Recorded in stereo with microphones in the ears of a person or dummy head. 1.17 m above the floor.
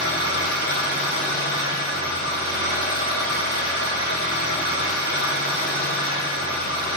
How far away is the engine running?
About 2 m.